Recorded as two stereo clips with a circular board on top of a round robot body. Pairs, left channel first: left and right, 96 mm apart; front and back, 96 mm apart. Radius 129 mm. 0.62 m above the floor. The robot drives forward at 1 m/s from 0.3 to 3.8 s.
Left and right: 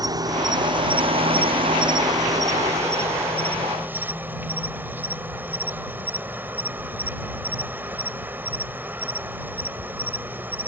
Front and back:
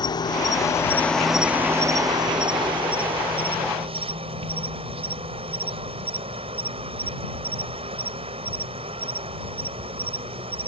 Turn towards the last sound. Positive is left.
turn(degrees=-160)